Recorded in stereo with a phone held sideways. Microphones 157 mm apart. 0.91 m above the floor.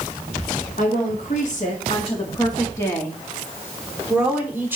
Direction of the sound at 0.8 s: 70° left (ahead or behind).